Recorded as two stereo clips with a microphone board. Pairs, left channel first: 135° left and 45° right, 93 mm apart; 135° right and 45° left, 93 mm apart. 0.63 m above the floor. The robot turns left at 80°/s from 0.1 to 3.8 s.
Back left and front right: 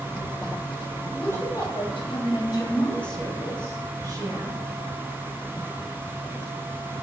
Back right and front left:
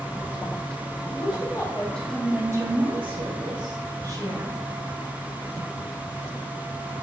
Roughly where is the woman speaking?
Behind right.